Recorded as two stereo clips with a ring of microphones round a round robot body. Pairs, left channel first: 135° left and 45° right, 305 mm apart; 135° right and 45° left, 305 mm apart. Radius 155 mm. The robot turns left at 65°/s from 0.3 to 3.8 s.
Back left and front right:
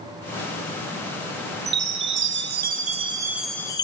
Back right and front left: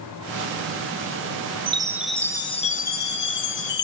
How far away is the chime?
About 0.7 m.